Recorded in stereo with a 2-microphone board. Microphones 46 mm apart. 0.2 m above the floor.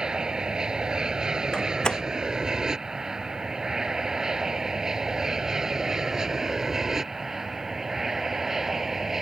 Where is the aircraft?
15° right (ahead or behind); by 9.2 s 5° right (ahead or behind).